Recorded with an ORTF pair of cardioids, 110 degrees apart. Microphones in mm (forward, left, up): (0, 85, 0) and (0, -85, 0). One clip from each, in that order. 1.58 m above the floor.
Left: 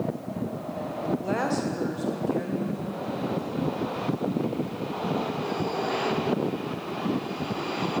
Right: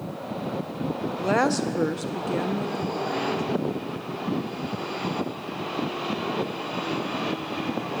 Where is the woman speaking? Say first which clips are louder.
Right 8 dB; 40° right, 1.1 m; by 3.4 s 60° right, 2.5 m.